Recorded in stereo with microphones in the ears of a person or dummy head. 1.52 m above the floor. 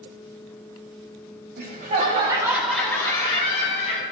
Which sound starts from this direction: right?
Laughter, at 1.6 s.